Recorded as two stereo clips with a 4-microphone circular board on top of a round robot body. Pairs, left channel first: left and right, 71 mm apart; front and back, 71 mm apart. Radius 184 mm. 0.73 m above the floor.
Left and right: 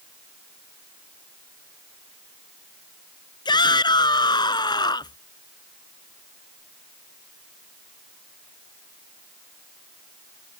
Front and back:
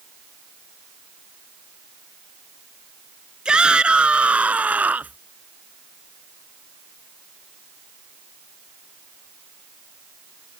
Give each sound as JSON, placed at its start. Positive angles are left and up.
{"t": 3.5, "sound": "a shout", "azimuth_deg": 100}